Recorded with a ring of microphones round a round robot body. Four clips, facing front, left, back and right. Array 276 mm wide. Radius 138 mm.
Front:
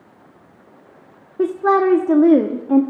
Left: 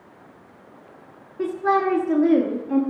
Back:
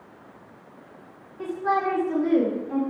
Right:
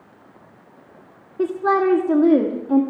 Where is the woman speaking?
20° right, 1.5 m.